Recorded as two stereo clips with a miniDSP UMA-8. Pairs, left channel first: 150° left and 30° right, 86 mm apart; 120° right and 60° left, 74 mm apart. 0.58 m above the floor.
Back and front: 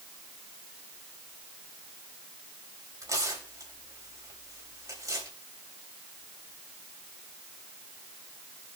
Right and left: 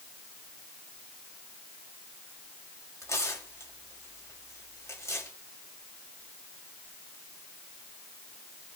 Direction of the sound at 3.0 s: 75° right.